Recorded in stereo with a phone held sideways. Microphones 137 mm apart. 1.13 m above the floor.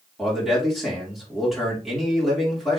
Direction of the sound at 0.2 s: Centre (ahead or behind).